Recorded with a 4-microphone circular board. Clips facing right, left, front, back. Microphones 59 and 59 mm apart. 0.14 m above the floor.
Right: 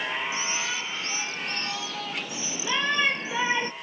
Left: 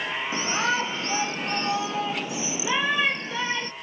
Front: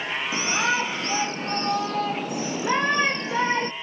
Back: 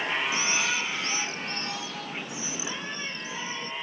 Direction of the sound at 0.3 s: 50° left.